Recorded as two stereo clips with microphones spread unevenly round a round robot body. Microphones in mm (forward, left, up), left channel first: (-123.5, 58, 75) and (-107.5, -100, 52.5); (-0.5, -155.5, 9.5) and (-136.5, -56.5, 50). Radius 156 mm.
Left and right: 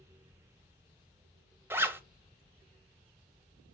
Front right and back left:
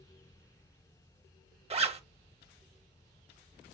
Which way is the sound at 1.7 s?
155° right.